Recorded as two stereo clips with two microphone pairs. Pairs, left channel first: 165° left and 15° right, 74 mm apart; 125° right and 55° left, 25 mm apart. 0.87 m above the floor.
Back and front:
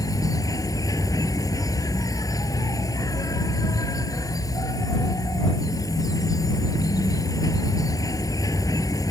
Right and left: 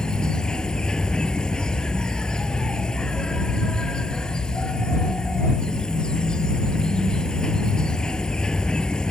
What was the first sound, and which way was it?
An insect, straight behind.